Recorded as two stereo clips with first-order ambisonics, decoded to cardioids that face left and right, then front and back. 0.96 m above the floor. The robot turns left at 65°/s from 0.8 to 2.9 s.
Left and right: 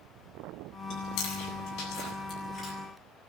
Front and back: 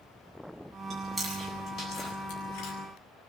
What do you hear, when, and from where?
0.9 s chewing: 115° left, 8.5 m; by 2.7 s 5° right, 8.5 m